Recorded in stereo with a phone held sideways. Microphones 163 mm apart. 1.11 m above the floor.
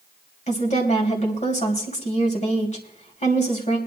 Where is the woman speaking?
50° left (ahead or behind), 2.5 m.